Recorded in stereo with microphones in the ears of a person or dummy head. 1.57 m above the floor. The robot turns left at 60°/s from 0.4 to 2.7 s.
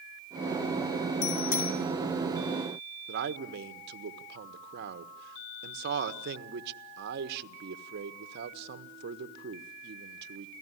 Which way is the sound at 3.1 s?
60° right (ahead or behind).